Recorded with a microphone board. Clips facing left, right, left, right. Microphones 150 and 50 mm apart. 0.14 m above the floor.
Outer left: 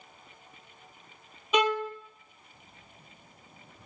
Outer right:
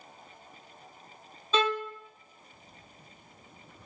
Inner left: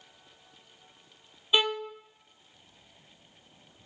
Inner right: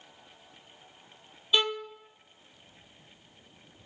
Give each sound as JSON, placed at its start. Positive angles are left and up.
{"t": 1.5, "sound": "a violin", "side_deg": 15, "distance_m": 0.7}